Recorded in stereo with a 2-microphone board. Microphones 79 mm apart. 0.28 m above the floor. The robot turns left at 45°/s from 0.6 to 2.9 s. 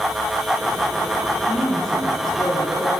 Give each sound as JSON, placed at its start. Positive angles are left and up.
{"t": 1.5, "sound": "a woman speaking", "azimuth_deg": 150, "distance_m": 7.0}